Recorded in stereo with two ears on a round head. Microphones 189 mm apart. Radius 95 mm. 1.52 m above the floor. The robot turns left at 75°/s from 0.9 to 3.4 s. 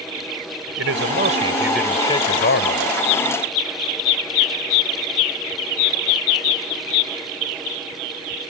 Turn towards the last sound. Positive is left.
turn(degrees=60)